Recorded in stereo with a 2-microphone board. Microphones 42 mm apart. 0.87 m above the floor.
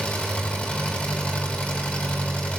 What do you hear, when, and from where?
0.0 s an engine running: 30° left (ahead or behind), 6 m